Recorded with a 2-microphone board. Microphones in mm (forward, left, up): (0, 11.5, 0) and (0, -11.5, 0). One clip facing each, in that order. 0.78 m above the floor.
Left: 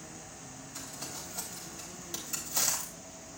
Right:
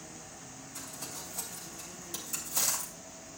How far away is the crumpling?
About 3.5 m.